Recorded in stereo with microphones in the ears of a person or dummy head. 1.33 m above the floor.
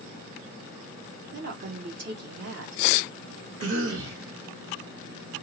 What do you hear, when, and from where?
1.3 s a woman speaking: 55° right (ahead or behind), 1.3 m
3.6 s a cough: 85° right, 1.9 m